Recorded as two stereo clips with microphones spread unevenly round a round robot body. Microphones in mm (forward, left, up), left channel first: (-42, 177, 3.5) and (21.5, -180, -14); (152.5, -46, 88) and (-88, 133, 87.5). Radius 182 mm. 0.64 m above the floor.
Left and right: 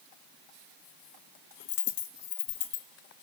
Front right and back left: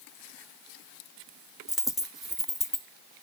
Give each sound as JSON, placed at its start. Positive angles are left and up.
{"t": 1.7, "sound": "a dropped coin", "azimuth_deg": 55, "distance_m": 1.7}